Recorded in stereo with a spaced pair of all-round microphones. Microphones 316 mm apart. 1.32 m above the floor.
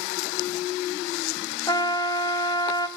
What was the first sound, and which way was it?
A trumpet, 15° left (ahead or behind).